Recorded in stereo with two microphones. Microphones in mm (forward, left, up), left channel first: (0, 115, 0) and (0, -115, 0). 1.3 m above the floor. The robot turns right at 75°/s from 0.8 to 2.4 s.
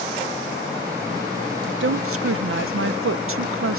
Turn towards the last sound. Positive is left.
turn(degrees=-75)